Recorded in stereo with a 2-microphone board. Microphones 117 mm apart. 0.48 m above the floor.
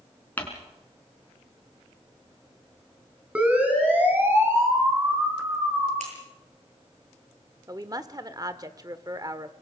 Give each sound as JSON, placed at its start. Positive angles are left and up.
{"t": 0.4, "sound": "crumpling", "side_deg": 15, "distance_m": 4.0}
{"t": 3.4, "sound": "a siren", "side_deg": -10, "distance_m": 4.0}
{"t": 6.0, "sound": "scissors", "side_deg": -80, "distance_m": 9.0}
{"t": 7.7, "sound": "a woman speaking", "side_deg": -35, "distance_m": 1.2}